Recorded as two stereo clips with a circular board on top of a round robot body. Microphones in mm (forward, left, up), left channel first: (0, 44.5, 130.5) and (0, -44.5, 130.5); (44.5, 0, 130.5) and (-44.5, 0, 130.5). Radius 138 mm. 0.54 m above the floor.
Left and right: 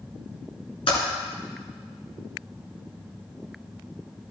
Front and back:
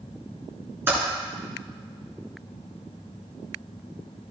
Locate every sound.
0.9 s typing on a keyboard: 115° left, 2 m